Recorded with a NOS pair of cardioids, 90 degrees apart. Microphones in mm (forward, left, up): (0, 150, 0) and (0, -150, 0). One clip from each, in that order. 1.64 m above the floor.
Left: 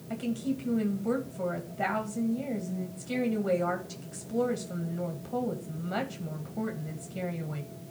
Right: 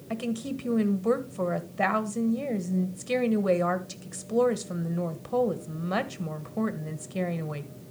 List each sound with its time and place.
0.1 s a woman speaking: 50° right, 1.7 m